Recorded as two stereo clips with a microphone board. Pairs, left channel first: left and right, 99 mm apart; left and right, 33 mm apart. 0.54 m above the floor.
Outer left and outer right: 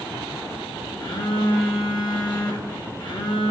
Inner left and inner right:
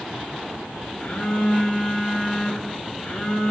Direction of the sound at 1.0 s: 50° left (ahead or behind).